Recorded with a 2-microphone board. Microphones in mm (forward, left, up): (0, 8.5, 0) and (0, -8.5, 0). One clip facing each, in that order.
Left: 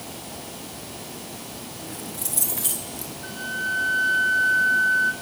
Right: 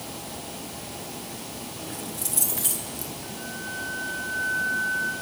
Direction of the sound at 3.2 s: 55° left (ahead or behind).